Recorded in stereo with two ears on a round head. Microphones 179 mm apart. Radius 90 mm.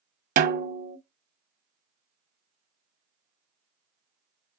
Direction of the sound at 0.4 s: 45° right (ahead or behind).